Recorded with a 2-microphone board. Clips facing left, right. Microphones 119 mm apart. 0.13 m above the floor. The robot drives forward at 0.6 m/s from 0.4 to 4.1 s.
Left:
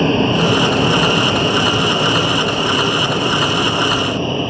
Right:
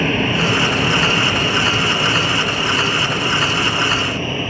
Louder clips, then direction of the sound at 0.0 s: Left 4 dB; 20° left (ahead or behind).